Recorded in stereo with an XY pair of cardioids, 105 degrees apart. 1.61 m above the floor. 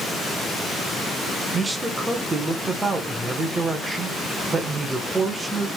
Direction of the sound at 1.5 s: 25° right.